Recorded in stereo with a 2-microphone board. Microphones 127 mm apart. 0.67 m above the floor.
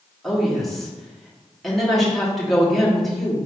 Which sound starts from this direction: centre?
A woman speaking, at 0.2 s.